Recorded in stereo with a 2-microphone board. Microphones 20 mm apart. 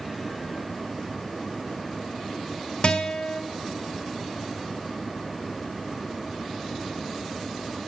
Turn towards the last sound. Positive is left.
turn(degrees=55)  # may be behind; listen again after turning